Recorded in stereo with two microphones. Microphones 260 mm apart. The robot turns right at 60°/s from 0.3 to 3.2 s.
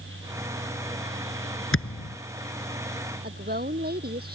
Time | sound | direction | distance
1.7 | a thud | 55° left (ahead or behind) | ?
3.2 | a woman speaking | 35° right (ahead or behind) | ?